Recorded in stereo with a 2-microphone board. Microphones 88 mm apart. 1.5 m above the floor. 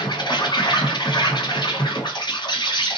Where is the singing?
No singing in this recording.